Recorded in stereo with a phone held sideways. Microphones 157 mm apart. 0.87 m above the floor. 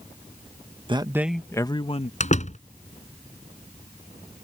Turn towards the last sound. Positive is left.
turn(degrees=50)  # may be behind; listen again after turning